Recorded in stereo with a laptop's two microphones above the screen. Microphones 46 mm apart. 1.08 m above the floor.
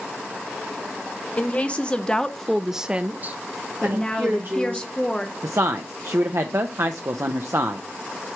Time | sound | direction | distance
1.4 | a woman speaking | 30° left (ahead or behind) | 1.2 m
3.8 | a woman speaking | 20° left (ahead or behind) | 0.5 m
5.4 | a woman speaking | 75° right (ahead or behind) | 0.5 m